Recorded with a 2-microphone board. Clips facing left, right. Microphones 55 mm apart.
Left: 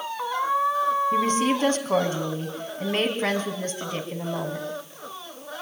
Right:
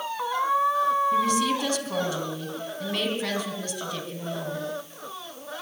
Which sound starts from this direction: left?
A woman speaking, at 1.1 s.